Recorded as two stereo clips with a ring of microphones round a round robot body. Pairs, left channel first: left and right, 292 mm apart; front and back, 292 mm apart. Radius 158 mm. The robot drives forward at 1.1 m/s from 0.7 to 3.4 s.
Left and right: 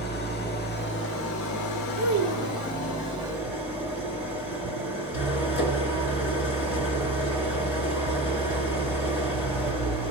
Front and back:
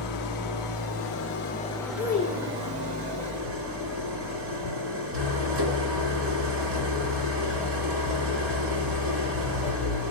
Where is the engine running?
35° left, 1.7 m; by 10.1 s 150° left, 1.9 m.